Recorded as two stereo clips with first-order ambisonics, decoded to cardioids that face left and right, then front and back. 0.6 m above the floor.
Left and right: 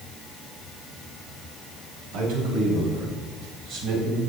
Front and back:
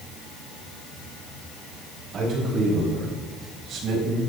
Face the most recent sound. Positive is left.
turn(degrees=-135)